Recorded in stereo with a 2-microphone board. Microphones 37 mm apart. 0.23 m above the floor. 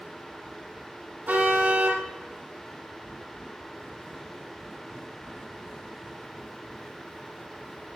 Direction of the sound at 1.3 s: 50° right (ahead or behind).